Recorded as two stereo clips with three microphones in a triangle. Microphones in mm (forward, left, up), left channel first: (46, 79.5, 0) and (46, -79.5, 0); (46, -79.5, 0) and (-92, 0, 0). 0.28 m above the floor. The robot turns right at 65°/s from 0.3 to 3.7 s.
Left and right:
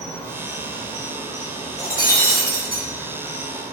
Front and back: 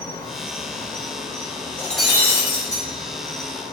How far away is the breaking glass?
About 2 m.